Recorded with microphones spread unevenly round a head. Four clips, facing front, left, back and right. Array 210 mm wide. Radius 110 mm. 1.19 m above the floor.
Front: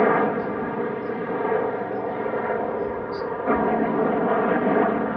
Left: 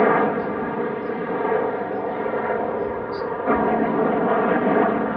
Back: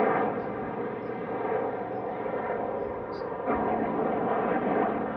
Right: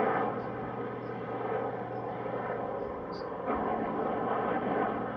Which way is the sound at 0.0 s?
60° left.